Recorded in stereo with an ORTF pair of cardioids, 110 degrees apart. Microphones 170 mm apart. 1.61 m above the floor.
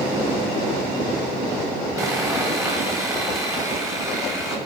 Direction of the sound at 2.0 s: 15° right.